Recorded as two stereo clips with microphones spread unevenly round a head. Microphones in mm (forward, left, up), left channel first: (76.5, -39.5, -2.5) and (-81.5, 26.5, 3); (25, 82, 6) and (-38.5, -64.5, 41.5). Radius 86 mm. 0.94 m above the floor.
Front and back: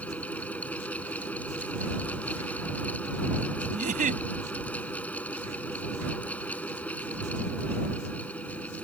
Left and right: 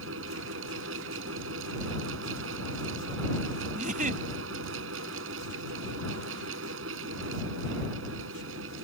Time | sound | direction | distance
0.0 | a fan | 105° right | ?
3.7 | a giggle | 155° right | ?